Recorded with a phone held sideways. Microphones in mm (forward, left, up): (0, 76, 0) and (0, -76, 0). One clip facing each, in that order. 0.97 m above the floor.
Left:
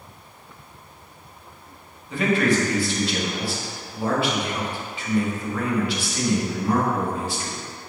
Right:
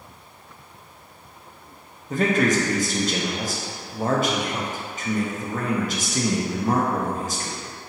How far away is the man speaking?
About 0.7 m.